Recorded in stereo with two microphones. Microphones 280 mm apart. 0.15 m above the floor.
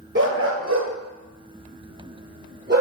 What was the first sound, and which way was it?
A dog barking, 40° right (ahead or behind).